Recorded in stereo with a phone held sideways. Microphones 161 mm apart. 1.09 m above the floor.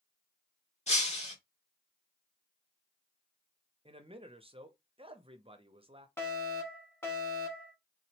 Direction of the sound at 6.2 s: 15° left (ahead or behind).